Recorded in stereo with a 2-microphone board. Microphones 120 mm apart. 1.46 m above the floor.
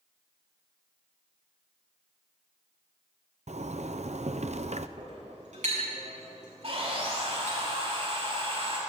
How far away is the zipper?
About 0.8 m.